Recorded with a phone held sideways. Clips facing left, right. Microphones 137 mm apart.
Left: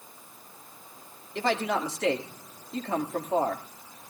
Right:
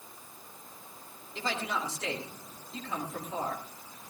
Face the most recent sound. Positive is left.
turn(degrees=60)  # may be behind; listen again after turning